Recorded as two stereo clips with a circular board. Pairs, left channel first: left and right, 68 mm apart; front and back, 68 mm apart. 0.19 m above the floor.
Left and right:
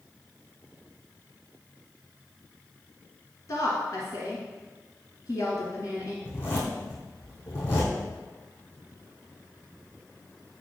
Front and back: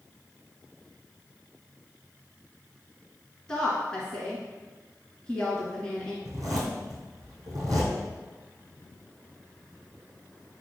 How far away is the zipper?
About 3 m.